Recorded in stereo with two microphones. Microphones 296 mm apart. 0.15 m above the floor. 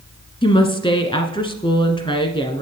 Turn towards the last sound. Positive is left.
turn(degrees=15)  # may be behind; listen again after turning